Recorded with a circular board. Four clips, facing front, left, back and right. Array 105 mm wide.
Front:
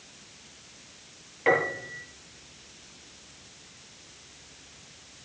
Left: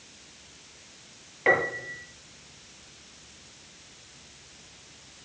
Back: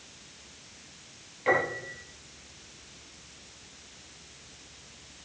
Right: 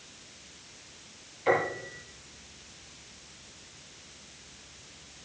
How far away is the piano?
About 6 m.